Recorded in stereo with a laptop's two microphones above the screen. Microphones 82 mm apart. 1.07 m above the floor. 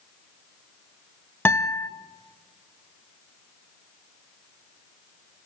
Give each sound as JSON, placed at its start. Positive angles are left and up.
{"t": 1.4, "sound": "a guitar", "side_deg": 25, "distance_m": 0.8}